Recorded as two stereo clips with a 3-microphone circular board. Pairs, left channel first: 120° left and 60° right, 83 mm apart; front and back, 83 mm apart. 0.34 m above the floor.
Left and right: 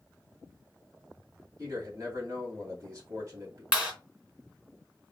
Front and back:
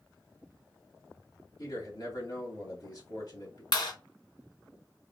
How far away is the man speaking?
About 2.5 m.